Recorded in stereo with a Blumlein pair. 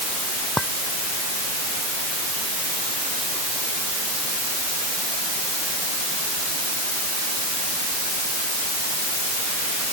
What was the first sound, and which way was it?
A clink, 5° left.